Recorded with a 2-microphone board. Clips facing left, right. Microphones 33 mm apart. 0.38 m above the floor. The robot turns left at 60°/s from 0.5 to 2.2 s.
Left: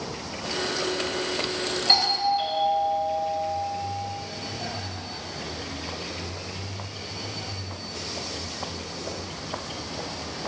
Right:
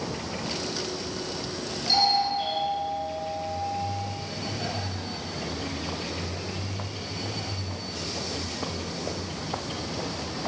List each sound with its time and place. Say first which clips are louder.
1.9 s a doorbell: even; 45° left (ahead or behind), 3 m; by 3.6 s 35° left (ahead or behind), 3 m